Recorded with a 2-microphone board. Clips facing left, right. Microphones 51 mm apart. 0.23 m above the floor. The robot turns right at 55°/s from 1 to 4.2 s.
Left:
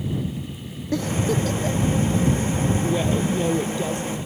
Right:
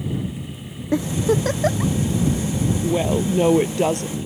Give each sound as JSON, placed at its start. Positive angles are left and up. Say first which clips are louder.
{"t": 0.9, "sound": "a giggle", "louder": "right 3 dB", "side_deg": -25}
{"t": 2.8, "sound": "a woman speaking", "louder": "right 2 dB", "azimuth_deg": -170}